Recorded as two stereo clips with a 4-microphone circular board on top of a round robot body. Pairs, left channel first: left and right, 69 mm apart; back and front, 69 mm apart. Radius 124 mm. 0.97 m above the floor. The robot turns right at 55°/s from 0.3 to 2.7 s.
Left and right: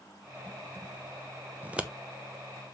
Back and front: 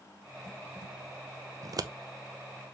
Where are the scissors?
25° right, 1.2 m; by 1.9 s 10° right, 1.2 m.